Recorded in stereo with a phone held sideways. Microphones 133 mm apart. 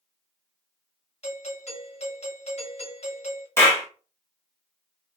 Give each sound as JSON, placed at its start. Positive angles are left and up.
{"t": 1.2, "sound": "a doorbell", "side_deg": 50, "distance_m": 1.3}
{"t": 3.6, "sound": "a clap", "side_deg": 20, "distance_m": 1.3}